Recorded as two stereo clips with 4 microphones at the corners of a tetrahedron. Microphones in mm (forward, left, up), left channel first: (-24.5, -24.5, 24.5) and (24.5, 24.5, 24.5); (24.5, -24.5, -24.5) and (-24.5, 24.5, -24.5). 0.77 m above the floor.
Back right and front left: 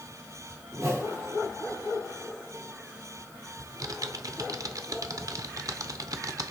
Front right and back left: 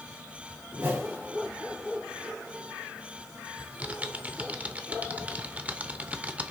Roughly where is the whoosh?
Left.